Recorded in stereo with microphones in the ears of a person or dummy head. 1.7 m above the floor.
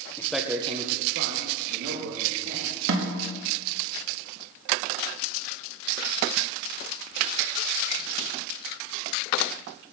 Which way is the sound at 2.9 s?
75° right (ahead or behind).